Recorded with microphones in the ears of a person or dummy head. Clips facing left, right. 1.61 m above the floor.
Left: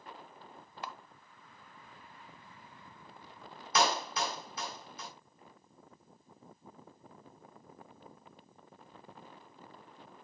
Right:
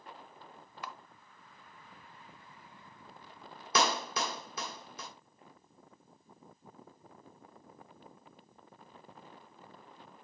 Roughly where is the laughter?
I don't hear laughter.